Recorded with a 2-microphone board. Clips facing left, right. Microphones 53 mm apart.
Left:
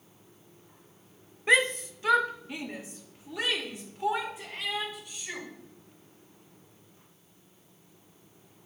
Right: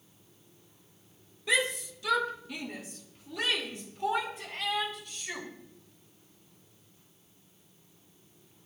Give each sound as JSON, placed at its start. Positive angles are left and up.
{"t": 1.5, "sound": "a shout", "side_deg": 40, "distance_m": 0.7}